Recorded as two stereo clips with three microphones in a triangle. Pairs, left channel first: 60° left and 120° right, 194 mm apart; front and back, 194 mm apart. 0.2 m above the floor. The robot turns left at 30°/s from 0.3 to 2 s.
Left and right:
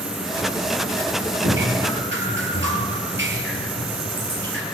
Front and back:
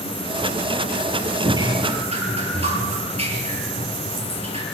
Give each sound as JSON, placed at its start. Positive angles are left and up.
{"t": 1.4, "sound": "dripping", "azimuth_deg": -105, "distance_m": 5.5}